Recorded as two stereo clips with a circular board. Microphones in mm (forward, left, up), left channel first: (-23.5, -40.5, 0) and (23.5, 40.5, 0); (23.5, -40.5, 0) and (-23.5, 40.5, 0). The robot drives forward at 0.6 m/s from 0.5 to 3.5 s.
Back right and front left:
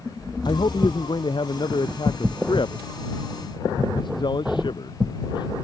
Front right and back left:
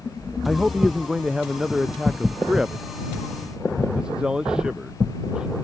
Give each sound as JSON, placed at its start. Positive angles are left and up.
{"t": 0.5, "sound": "a man speaking", "azimuth_deg": -155}